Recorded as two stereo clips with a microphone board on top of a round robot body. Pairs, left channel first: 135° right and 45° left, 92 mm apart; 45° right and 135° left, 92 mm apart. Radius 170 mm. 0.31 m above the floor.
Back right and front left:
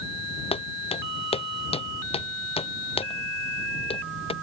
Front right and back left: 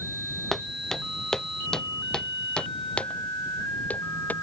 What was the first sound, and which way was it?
Footsteps, 135° right.